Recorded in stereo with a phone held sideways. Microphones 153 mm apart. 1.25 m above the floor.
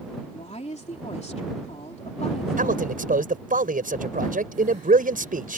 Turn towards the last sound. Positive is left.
turn(degrees=-75)  # may be behind; listen again after turning